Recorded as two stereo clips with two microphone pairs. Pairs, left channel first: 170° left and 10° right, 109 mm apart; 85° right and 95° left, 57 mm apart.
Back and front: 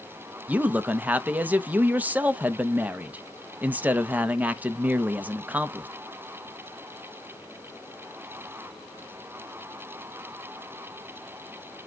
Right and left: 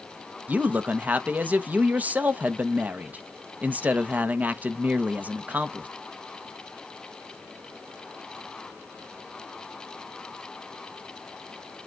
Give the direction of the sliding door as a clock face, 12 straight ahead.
I don't hear a sliding door.